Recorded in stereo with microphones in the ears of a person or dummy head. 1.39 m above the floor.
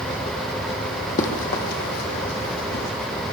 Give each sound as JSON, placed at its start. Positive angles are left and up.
{"t": 1.2, "sound": "running footsteps", "side_deg": 45, "distance_m": 3.5}